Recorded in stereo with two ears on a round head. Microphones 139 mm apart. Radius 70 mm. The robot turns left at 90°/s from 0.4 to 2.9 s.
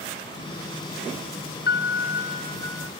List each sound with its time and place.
1.7 s a piano: 110° left; by 2.9 s 5° right